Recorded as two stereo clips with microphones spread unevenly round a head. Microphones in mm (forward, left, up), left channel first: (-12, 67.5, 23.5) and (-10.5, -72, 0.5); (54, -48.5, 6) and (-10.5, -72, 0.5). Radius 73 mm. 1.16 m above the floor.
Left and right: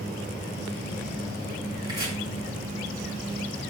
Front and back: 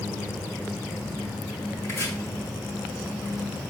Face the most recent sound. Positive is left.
turn(degrees=-25)